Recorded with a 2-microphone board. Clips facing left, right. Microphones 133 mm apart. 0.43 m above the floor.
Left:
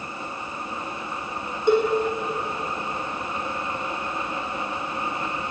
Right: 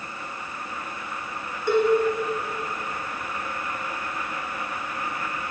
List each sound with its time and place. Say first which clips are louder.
1.7 s a cowbell: left 2 dB; 20° left (ahead or behind), 1.4 m